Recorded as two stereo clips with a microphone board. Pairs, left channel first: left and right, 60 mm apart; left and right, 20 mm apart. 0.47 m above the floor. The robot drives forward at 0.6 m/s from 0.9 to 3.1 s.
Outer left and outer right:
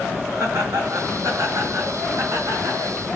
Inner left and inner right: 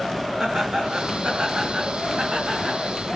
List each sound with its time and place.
0.4 s laughter: 60° right (ahead or behind), 4 m; by 2.8 s 70° right (ahead or behind), 4 m